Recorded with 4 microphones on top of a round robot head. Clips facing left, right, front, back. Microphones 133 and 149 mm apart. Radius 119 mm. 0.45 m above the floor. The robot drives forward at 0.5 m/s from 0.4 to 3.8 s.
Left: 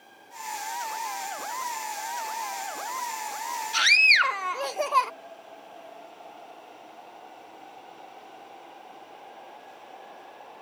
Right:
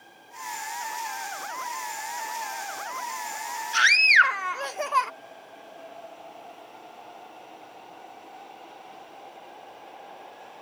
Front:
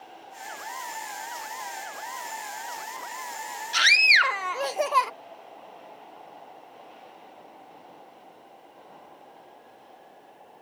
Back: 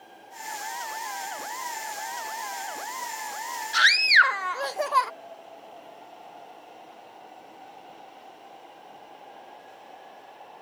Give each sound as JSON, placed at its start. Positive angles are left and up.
{"t": 3.7, "sound": "a scream", "azimuth_deg": 50}